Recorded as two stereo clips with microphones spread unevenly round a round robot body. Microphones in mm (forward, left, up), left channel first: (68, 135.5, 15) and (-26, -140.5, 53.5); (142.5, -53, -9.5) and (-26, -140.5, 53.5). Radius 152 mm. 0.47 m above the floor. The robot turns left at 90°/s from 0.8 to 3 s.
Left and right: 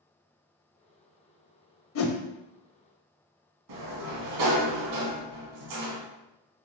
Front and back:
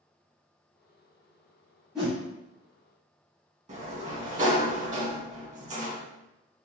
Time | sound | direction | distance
1.9 | a whoosh | 120° left | 0.5 m
3.7 | a sliding door | 100° right | 1.1 m